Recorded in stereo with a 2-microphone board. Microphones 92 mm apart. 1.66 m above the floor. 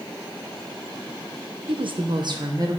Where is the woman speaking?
65° right (ahead or behind), 0.9 m; by 2.8 s 40° right (ahead or behind), 1.4 m.